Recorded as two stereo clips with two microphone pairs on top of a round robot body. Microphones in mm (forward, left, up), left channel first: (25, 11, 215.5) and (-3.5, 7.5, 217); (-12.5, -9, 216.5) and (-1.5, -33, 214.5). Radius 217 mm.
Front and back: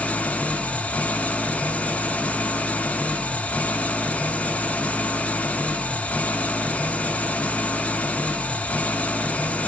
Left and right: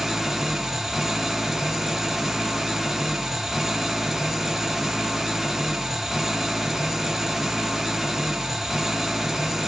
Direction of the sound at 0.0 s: 5° left.